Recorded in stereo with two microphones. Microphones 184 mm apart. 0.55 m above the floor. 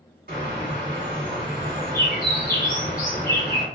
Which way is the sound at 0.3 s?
60° right (ahead or behind).